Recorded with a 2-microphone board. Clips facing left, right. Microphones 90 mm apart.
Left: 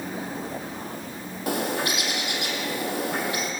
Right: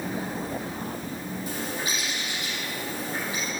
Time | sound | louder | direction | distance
1.5 | a bird | left 8 dB | 75° left (ahead or behind) | 1.7 m